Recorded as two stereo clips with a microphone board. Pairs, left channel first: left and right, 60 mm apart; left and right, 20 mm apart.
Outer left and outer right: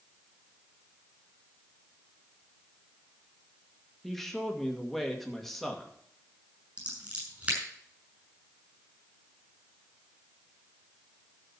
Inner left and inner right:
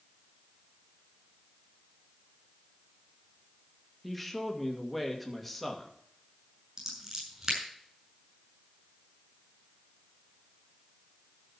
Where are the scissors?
25° right (ahead or behind), 6 m.